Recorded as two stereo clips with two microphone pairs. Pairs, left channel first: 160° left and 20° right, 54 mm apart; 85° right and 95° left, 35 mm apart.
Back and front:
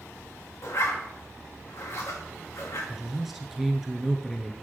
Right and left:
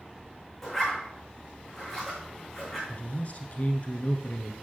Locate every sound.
0.6 s a zipper: 170° right, 5 m
2.9 s a man speaking: 105° right, 1.5 m